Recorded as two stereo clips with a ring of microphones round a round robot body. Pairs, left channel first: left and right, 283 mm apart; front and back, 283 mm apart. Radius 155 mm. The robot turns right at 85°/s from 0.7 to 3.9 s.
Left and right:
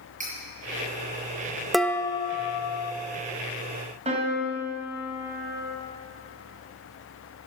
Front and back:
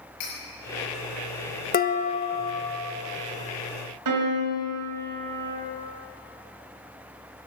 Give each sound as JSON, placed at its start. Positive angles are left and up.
{"t": 0.2, "sound": "cutlery clinking", "azimuth_deg": -25, "distance_m": 6.0}
{"t": 1.7, "sound": "dishes clattering", "azimuth_deg": 0, "distance_m": 0.7}
{"t": 4.0, "sound": "a piano", "azimuth_deg": -160, "distance_m": 3.0}